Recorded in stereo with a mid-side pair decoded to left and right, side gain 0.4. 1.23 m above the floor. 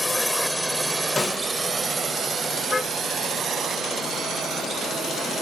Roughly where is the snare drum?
Ahead left.